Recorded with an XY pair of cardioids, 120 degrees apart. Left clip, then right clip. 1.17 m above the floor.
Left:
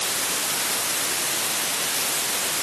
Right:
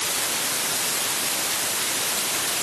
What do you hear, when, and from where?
Only background noise.